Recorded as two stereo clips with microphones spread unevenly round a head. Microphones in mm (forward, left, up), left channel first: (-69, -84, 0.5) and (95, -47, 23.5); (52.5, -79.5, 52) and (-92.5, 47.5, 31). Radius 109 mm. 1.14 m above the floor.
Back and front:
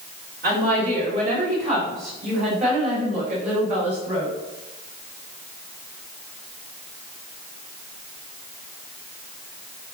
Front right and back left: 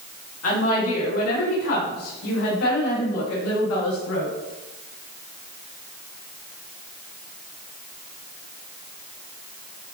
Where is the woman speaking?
20° right, 2.5 m; by 4.3 s 35° right, 6 m.